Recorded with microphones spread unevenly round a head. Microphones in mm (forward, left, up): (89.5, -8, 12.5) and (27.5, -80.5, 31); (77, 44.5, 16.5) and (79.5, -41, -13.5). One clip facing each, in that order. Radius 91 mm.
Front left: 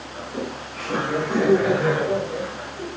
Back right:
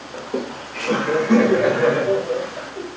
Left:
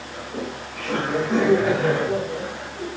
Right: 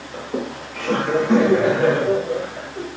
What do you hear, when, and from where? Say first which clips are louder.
0.1 s laughter: back right 4 dB, right 5 dB; 120° right, 3 m; by 2.9 s 130° right, 4 m